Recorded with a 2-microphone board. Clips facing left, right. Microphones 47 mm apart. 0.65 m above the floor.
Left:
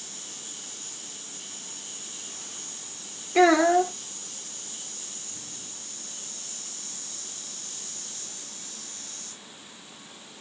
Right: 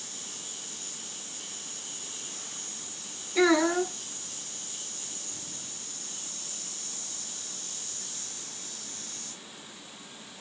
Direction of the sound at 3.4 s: 70° left (ahead or behind).